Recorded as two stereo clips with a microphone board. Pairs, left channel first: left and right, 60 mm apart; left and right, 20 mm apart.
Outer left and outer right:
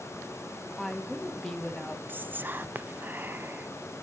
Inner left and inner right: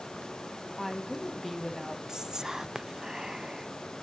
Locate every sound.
0.8 s a woman speaking: 10° left (ahead or behind), 1.3 m
2.1 s whispering: 35° right (ahead or behind), 0.5 m